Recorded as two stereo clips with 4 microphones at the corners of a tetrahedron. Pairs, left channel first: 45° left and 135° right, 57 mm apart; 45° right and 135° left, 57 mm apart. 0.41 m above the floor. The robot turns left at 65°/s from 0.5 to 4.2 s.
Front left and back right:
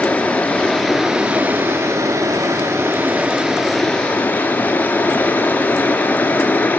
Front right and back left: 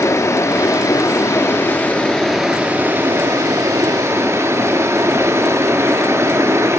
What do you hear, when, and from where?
0.0 s running water: 15° right, 0.9 m; by 6.8 s 105° left, 0.9 m